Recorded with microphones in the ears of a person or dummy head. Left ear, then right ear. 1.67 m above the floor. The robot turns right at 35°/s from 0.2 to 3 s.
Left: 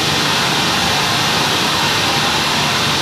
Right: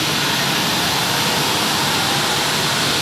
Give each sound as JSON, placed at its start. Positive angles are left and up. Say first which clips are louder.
{"t": 0.0, "sound": "running water", "louder": "left 3 dB", "azimuth_deg": -145, "distance_m": 0.9}